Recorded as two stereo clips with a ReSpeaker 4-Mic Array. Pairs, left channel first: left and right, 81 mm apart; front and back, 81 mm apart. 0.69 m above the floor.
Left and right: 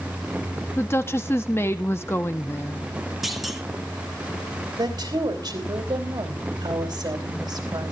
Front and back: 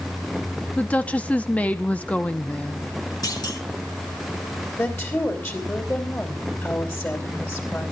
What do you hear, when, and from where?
0.8 s a woman speaking: 60° left, 0.8 m
3.2 s a clunk: straight ahead, 1.9 m
4.8 s a woman speaking: 60° right, 3 m